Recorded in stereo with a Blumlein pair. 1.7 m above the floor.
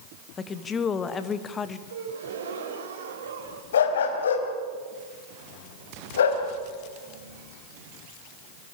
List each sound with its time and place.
0.4 s a woman speaking: 20° left, 2 m
1.9 s a gasp: 60° right, 4 m
3.7 s a dog barking: 65° left, 4 m